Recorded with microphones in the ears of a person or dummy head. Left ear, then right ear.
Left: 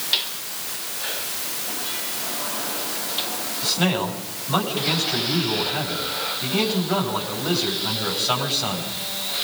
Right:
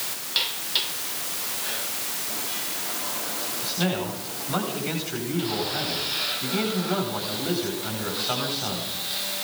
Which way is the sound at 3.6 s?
5° left (ahead or behind).